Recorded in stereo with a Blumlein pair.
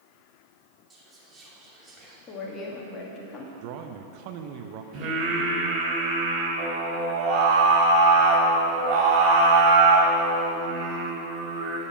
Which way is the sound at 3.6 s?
45° right.